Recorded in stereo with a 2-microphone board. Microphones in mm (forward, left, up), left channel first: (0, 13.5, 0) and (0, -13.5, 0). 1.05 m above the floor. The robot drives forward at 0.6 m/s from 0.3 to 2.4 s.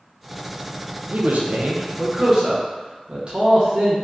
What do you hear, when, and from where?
1.1 s a man speaking: 70° right (ahead or behind), 0.5 m; by 4.0 s 40° right (ahead or behind), 0.8 m